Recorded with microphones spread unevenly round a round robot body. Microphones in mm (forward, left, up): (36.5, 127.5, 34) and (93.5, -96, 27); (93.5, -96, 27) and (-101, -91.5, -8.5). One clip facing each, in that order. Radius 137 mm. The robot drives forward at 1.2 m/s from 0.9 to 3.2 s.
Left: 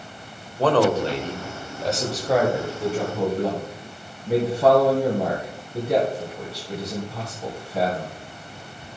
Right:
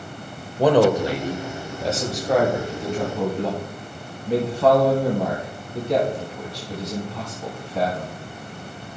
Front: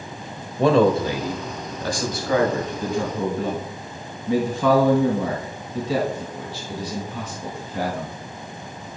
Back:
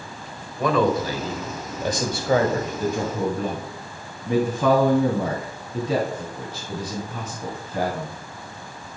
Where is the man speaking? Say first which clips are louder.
Right 3 dB, front 4 dB; 30° right, 1.4 m; by 8.2 s 175° right, 2.5 m.